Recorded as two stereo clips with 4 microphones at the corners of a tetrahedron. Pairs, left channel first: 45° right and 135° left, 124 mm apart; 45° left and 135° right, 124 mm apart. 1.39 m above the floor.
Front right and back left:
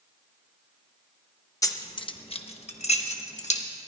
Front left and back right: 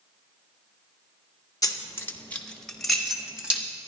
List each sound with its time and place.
1.6 s keys jangling: 5° left, 0.7 m; by 3.6 s 55° right, 1.4 m